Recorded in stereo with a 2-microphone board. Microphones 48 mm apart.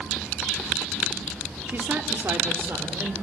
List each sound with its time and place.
1.7 s a woman speaking: 50° right (ahead or behind), 2.0 m; by 3.1 s 75° right (ahead or behind), 3 m